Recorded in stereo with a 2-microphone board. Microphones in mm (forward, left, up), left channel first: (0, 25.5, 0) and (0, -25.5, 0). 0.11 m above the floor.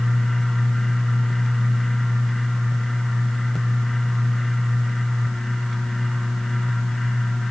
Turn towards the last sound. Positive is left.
No sound to turn to.